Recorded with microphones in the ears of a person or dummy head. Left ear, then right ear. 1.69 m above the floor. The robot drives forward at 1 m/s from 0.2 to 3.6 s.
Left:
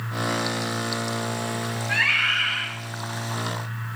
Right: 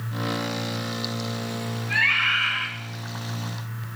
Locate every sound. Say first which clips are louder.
1.9 s a scream: even; 75° left (ahead or behind), 7 m; by 2.7 s 70° left (ahead or behind), 7 m